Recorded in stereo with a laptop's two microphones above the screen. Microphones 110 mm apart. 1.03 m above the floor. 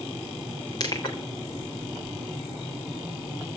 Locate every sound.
0.8 s crushing: 40° left (ahead or behind), 3.5 m